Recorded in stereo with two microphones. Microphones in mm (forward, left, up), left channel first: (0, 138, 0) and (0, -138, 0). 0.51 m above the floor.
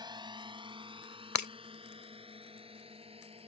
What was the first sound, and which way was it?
A drone, 15° right (ahead or behind).